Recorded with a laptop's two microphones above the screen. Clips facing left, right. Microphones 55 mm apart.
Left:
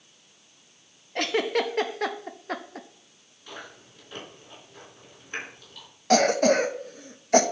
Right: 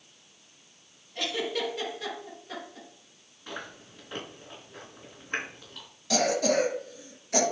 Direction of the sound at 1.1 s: 55° left (ahead or behind).